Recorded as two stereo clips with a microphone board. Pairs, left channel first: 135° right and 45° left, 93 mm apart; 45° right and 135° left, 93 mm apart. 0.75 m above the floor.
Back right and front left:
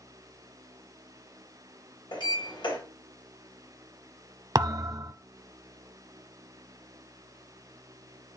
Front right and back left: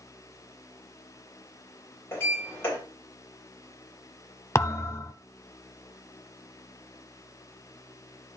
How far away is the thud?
About 0.6 m.